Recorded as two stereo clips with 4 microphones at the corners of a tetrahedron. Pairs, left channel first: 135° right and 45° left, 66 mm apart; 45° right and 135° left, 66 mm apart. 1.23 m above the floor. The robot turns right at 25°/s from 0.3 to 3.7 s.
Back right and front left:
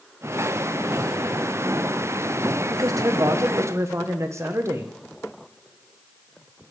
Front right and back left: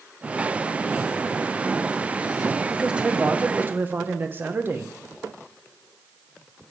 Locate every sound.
2.7 s a man speaking: 55° left, 1.0 m; by 4.9 s 80° left, 1.0 m